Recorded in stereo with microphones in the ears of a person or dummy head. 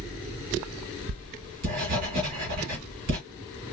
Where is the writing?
40° right (ahead or behind), 1.5 m.